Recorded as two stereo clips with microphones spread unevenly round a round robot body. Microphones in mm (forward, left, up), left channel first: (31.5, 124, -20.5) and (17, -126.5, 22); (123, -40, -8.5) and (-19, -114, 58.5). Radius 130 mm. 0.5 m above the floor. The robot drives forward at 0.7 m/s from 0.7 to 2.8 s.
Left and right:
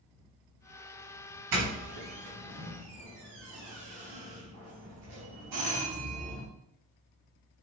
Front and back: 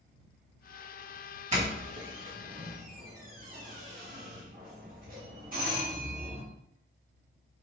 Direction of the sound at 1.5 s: 100° right.